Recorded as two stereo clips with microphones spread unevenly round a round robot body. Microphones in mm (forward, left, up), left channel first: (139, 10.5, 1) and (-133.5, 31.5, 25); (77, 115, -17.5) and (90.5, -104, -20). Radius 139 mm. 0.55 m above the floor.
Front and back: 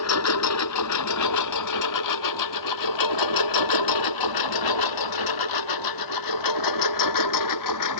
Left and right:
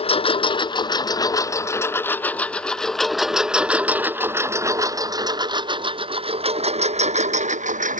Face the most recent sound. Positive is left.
turn(degrees=-30)